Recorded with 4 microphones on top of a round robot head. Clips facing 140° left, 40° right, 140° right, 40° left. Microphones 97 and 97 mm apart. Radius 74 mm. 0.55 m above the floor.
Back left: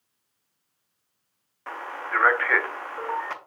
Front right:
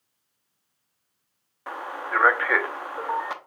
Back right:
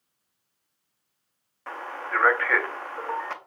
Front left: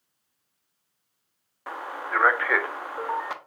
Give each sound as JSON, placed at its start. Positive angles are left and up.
{"t": 1.7, "sound": "a man speaking", "azimuth_deg": -5, "distance_m": 0.6}